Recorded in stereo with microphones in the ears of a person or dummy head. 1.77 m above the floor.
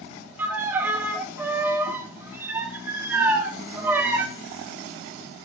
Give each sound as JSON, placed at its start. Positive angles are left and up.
{"t": 0.4, "sound": "a violin", "side_deg": -15, "distance_m": 1.1}